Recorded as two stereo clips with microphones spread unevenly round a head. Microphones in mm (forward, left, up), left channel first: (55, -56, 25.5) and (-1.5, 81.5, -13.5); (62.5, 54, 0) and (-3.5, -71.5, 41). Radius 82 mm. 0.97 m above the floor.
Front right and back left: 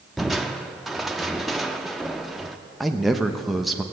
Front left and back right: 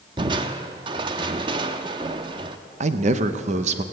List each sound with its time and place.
0.2 s crushing: 145° right, 0.5 m
2.8 s a man speaking: 170° right, 0.7 m